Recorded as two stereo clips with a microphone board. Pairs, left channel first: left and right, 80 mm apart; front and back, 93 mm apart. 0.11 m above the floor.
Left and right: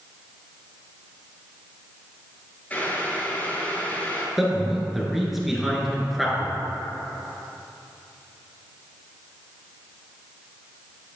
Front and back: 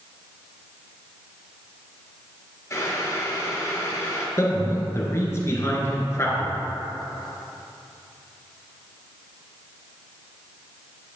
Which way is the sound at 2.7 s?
35° left.